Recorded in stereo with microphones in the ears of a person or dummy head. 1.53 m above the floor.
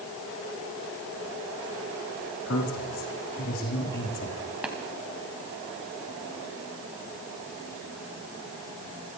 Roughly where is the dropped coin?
No dropped coin in this recording.